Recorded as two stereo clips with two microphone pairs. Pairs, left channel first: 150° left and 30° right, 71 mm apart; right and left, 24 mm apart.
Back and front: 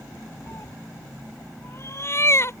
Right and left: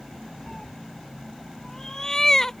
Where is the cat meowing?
160° right.